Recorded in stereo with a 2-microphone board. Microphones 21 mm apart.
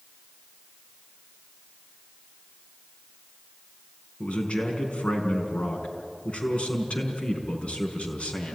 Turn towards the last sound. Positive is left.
turn(degrees=80)